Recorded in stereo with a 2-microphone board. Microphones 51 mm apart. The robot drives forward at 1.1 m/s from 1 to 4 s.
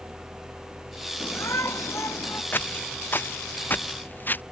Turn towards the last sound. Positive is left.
turn(degrees=40)  # may be behind; listen again after turning